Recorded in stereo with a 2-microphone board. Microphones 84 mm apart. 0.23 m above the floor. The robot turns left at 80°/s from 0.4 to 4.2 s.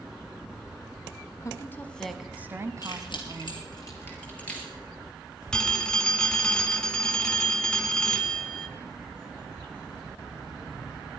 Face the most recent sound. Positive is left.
turn(degrees=10)  # may be behind; listen again after turning